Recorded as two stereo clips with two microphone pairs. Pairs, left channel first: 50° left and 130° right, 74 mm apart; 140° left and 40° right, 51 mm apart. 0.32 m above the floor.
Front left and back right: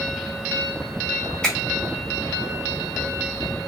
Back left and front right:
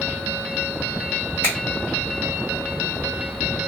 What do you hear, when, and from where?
1.4 s a finger snap: 25° right, 1.7 m